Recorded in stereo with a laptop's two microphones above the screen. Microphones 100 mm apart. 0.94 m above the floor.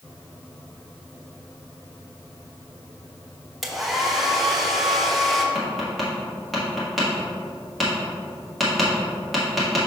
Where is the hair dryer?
Centre (ahead or behind), 0.9 m.